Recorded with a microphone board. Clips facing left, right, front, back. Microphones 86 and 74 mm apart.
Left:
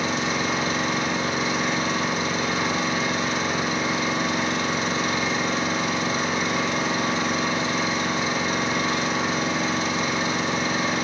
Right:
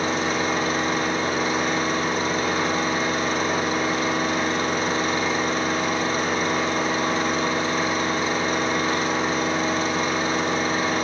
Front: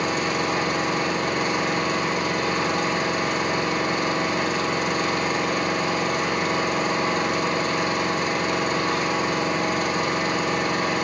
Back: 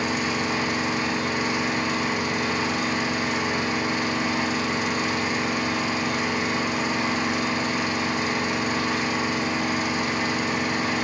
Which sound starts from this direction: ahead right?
An engine running, at 0.0 s.